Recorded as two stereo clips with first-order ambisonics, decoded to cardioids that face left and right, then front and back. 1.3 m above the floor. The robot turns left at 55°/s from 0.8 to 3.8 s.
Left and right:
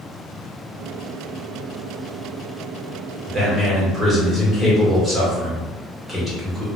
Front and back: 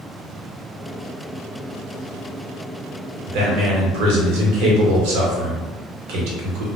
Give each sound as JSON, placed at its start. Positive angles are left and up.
{"t": 3.3, "sound": "a man speaking", "azimuth_deg": -150, "distance_m": 1.0}